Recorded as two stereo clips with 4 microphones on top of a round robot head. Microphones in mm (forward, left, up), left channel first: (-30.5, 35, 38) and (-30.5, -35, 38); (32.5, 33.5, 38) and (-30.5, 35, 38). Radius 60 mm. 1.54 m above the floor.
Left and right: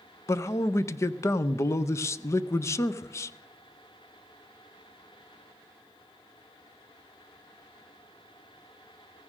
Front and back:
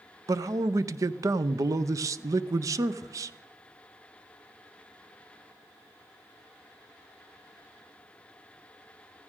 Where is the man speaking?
140° left, 0.5 m.